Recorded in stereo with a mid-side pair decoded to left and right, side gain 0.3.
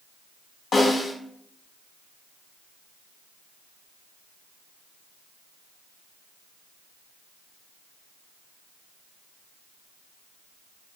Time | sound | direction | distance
0.7 | a snare drum | 70° left | 1.2 m